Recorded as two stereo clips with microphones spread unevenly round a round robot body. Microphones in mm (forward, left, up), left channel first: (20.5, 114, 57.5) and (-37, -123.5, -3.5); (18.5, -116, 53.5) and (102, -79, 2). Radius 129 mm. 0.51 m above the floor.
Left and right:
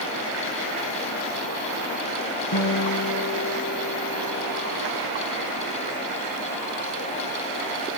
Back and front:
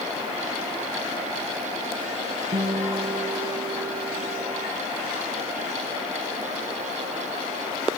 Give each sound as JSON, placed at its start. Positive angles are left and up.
{"t": 2.5, "sound": "a guitar", "azimuth_deg": 40, "distance_m": 4.5}